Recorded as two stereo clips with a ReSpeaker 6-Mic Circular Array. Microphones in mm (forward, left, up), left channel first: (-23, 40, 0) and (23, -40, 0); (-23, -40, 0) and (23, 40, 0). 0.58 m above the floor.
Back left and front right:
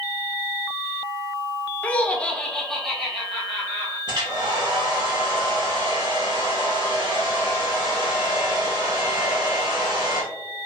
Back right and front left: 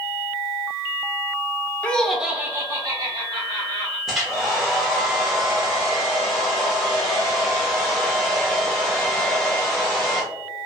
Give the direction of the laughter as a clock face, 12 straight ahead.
6 o'clock.